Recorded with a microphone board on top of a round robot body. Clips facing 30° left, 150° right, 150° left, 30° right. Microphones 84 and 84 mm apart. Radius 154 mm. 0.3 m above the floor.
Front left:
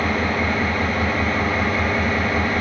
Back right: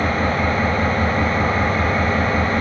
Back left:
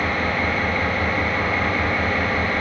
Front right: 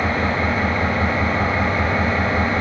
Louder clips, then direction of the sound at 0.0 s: Back right 2 dB, front right 2 dB; 95° right.